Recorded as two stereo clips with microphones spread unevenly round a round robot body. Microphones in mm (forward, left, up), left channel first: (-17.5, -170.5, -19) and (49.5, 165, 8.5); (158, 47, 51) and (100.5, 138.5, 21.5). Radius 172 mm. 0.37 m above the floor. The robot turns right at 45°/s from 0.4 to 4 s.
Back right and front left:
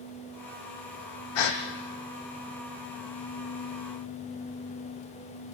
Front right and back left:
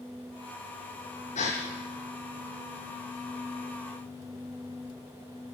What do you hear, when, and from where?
1.4 s a gasp: 90° right, 3 m; by 1.6 s 80° right, 3 m